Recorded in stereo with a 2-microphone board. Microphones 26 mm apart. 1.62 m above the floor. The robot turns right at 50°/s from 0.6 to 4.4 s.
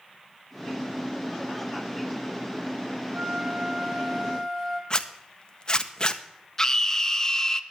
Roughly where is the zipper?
Left.